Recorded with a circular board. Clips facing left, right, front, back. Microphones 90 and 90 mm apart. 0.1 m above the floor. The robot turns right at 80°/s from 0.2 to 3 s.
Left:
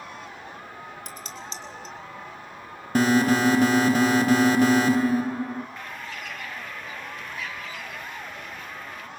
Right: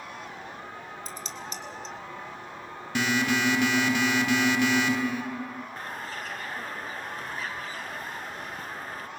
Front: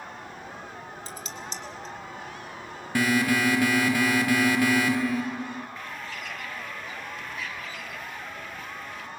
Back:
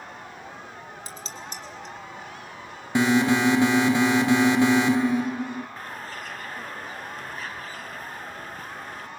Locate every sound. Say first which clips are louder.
1.1 s dishes clattering: even, front 1 dB; 110° left, 3 m; by 1.9 s straight behind, 3 m
3.0 s an alarm: left 6 dB, back 4 dB; 120° left, 1.2 m; by 5.7 s 125° left, 1.2 m
5.8 s a bird: right 1 dB, back 1 dB; 135° right, 0.7 m